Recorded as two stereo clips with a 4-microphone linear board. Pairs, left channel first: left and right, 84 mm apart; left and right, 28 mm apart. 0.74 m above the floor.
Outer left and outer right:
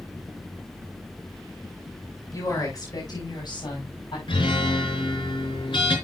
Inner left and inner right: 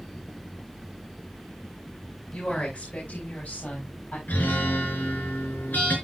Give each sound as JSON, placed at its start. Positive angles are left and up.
{"t": 2.3, "sound": "a woman speaking", "side_deg": 40, "distance_m": 4.0}
{"t": 4.3, "sound": "a guitar", "side_deg": 85, "distance_m": 4.0}